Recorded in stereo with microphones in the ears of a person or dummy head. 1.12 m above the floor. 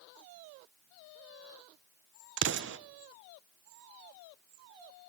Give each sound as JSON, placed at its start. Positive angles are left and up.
{"t": 2.4, "sound": "an explosion", "side_deg": -60, "distance_m": 0.5}